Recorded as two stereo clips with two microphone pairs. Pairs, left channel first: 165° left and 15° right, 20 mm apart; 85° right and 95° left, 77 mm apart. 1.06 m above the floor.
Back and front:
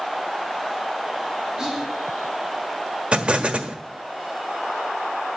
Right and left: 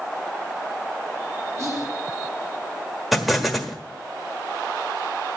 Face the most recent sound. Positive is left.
turn(degrees=5)